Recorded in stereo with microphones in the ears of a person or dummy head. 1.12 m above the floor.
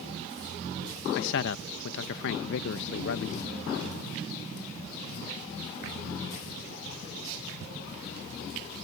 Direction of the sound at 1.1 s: 65° left (ahead or behind).